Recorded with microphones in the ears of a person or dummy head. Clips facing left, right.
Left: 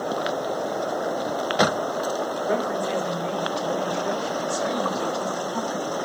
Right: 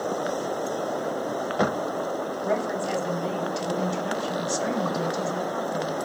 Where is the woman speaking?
70° right (ahead or behind), 9 m; by 6.0 s 65° right (ahead or behind), 6 m.